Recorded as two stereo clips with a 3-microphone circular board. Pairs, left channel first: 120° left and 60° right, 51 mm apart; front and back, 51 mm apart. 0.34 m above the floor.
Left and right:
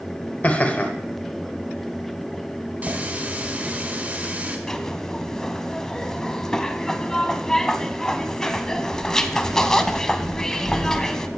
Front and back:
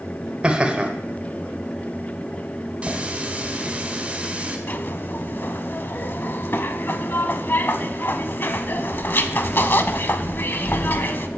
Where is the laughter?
135° left, 1.0 m.